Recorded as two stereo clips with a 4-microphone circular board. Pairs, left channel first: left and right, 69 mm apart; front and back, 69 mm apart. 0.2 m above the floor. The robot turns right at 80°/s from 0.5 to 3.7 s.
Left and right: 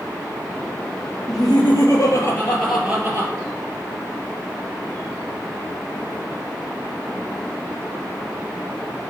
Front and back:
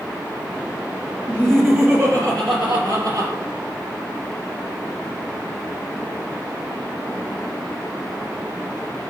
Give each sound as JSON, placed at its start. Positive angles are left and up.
{"t": 1.3, "sound": "laughter", "azimuth_deg": 65, "distance_m": 4.0}